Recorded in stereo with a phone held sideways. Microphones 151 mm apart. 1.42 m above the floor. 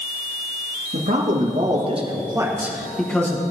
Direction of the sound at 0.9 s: 70° right (ahead or behind).